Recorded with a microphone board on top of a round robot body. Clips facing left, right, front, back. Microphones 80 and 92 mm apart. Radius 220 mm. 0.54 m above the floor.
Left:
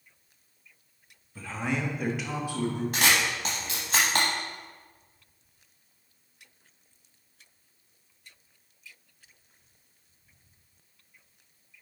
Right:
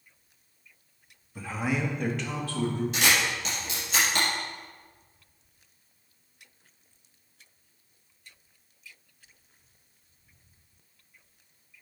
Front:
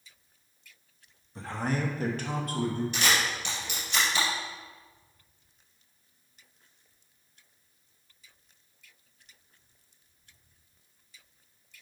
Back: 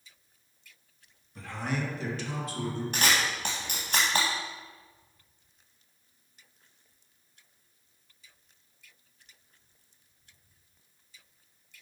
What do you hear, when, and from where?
1.4 s a man speaking: 35° right, 1.3 m; by 2.8 s 20° left, 1.8 m
2.9 s a camera shutter: 135° left, 0.7 m